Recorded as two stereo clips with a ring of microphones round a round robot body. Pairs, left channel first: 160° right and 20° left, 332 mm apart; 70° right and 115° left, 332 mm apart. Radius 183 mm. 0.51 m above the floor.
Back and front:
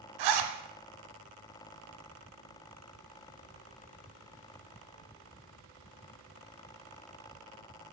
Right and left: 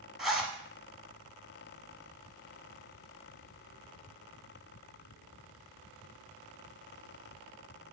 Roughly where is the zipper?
Ahead left.